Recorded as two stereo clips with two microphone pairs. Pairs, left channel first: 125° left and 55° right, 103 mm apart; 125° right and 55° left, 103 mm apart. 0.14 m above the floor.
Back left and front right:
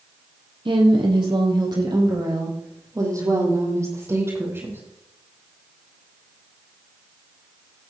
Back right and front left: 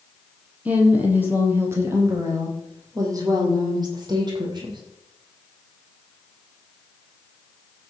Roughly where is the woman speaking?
Ahead.